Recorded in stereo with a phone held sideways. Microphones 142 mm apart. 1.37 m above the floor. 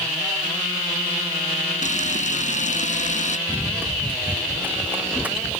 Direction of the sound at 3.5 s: 15° right (ahead or behind).